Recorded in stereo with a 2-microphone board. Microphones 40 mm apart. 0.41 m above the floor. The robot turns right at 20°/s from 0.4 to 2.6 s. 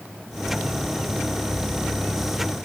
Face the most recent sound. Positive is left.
No sound to turn to.